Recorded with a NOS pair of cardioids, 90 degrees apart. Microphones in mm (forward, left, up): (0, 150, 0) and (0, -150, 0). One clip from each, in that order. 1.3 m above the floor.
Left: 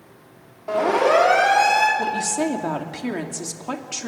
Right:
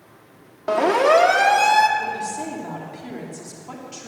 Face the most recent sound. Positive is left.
turn(degrees=65)